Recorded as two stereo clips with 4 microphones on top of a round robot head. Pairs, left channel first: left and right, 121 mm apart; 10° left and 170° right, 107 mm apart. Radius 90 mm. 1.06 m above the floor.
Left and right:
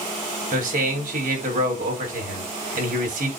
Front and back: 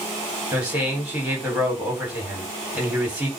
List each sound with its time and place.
0.5 s a man speaking: 90° right, 4.5 m